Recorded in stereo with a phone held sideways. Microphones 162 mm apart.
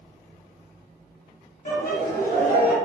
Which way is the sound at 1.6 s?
55° left (ahead or behind).